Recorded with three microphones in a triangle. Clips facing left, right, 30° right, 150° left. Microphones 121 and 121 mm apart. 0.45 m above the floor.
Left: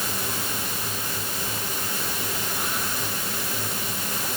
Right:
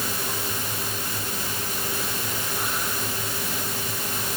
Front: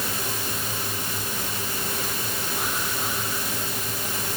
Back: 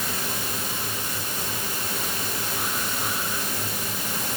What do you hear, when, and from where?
Only background noise.